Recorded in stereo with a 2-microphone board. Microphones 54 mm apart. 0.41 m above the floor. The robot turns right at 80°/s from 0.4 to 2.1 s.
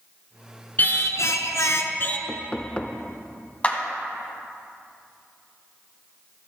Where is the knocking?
25° left (ahead or behind), 0.5 m.